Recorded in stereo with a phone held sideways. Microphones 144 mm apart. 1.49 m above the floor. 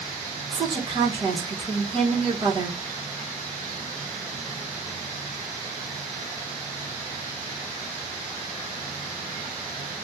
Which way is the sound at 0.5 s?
35° right (ahead or behind).